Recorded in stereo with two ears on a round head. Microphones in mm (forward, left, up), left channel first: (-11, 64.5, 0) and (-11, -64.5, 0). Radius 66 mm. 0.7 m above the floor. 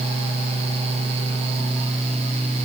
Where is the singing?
No singing in this recording.